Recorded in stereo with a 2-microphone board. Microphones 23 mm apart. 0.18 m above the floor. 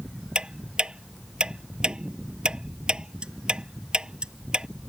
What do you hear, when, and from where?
0.3 s ticking: 40° right (ahead or behind)